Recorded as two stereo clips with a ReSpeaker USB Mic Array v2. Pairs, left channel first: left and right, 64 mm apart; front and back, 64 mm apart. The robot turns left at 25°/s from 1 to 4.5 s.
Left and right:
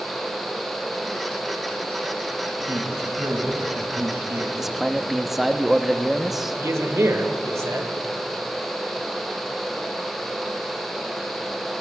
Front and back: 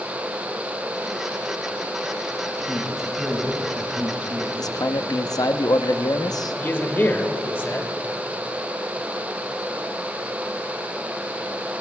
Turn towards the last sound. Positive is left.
turn(degrees=-55)